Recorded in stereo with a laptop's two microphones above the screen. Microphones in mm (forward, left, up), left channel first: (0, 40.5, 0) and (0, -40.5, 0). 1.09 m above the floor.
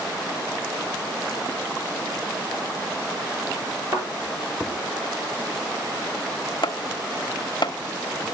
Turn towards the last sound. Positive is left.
turn(degrees=65)  # may be behind; listen again after turning